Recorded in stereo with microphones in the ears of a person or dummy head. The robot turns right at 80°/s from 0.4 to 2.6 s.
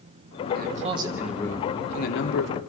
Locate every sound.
0.5 s a man speaking: 60° right, 3 m; by 2.6 s 100° left, 3 m